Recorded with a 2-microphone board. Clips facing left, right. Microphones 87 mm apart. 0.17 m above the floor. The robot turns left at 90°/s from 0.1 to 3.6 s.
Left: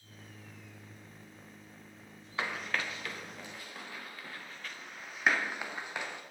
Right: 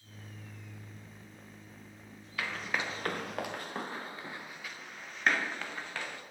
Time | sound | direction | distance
2.4 | running footsteps | 30° left (ahead or behind) | 1.6 m